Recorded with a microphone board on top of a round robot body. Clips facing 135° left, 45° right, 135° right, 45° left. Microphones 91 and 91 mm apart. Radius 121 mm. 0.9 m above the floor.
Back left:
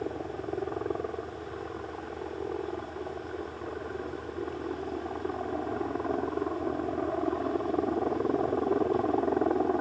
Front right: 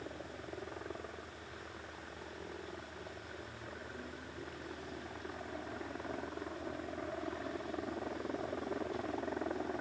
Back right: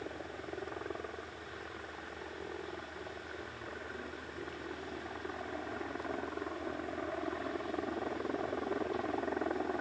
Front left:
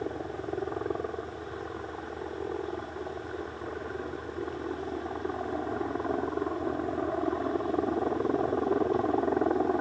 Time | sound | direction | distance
0.0 | a helicopter | 100° left | ?